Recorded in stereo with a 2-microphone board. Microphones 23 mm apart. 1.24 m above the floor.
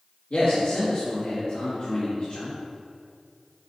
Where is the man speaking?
75° left (ahead or behind), 1.9 m.